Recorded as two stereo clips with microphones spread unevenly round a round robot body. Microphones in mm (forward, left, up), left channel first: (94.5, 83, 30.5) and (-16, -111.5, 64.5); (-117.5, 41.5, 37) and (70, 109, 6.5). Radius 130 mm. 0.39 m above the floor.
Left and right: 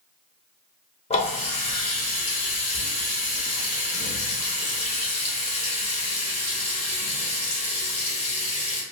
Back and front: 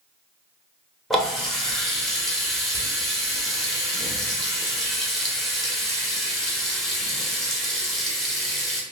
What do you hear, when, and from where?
1.1 s a running tap: 105° left, 0.9 m